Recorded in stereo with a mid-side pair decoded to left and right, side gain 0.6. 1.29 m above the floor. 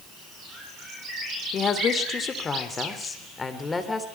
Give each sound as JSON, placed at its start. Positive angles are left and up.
{"t": 1.5, "sound": "a woman speaking", "azimuth_deg": 40, "distance_m": 3.0}